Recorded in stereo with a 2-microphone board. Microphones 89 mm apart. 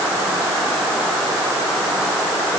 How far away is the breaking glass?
No breaking glass in this recording.